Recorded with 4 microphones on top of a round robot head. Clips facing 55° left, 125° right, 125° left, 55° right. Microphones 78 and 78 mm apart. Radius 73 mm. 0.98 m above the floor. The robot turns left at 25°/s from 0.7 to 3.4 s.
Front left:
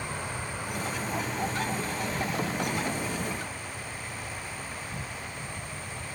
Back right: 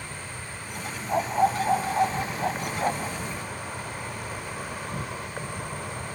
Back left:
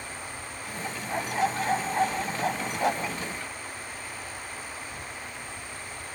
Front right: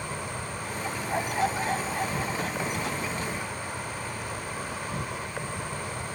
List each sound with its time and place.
0.0 s an insect: 20° right; by 6.2 s 90° right
1.1 s a dog barking: 140° right; by 3.2 s 170° left